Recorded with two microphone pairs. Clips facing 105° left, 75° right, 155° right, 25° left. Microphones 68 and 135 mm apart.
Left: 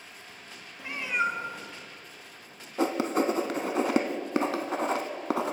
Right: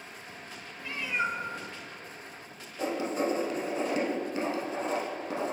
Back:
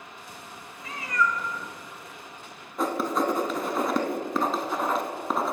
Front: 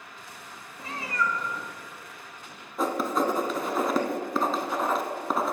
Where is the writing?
115° left, 0.5 m.